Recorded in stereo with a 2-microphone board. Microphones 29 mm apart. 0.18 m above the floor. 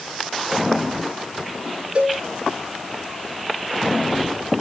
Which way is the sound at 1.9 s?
50° right (ahead or behind).